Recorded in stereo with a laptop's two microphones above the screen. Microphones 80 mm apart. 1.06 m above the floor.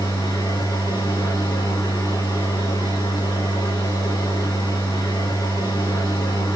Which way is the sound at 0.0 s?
85° left.